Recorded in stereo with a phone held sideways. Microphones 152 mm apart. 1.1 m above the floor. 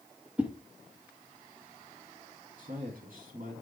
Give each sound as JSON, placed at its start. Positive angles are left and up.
{"t": 0.4, "sound": "a whoosh", "side_deg": -10, "distance_m": 1.2}
{"t": 2.6, "sound": "a man speaking", "side_deg": -65, "distance_m": 2.5}